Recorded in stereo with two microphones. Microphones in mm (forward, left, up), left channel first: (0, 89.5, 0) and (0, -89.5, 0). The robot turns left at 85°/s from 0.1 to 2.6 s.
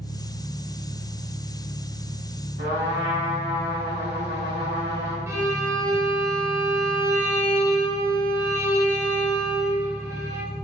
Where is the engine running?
55° left, 1.6 m; by 10.6 s 155° right, 1.6 m.